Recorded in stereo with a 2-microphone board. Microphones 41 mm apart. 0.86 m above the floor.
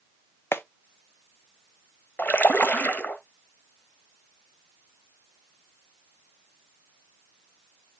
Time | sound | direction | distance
0.5 | a clap | 75° left (ahead or behind) | 0.7 m
2.2 | a splash | 50° left (ahead or behind) | 1.0 m